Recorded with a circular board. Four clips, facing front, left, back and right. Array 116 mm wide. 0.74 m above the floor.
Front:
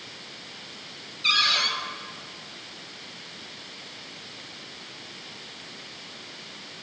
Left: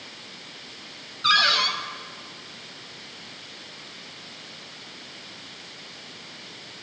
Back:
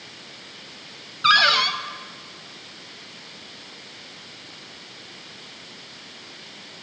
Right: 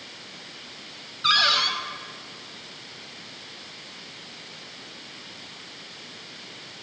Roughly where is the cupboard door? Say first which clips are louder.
Left 1 dB, back 9 dB; behind.